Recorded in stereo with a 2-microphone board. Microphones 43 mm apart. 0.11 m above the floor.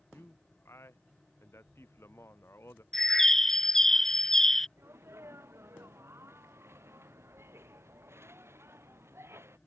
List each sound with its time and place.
0.1 s a man speaking: 80° left
2.9 s a bird: 10° left (ahead or behind)
4.8 s a sneeze: 75° right (ahead or behind)